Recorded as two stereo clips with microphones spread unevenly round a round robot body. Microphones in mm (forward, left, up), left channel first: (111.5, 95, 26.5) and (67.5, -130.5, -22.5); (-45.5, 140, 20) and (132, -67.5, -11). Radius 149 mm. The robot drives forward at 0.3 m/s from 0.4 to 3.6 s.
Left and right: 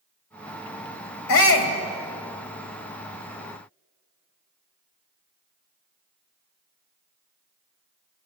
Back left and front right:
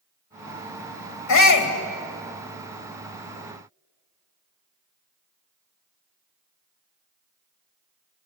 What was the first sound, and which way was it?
A shout, 105° left.